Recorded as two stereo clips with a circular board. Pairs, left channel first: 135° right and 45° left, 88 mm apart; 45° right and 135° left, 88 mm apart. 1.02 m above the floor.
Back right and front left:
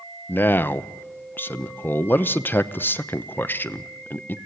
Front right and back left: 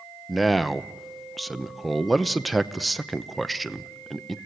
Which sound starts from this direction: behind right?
A man speaking, at 0.3 s.